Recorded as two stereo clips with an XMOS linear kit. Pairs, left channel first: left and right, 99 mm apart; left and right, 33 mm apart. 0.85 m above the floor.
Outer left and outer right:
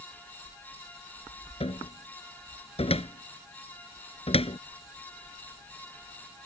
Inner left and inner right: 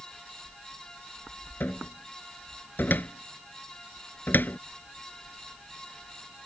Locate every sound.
1.6 s a cupboard door: 90° left